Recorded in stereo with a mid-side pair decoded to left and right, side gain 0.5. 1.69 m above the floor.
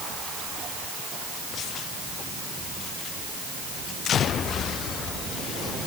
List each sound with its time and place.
Only background noise.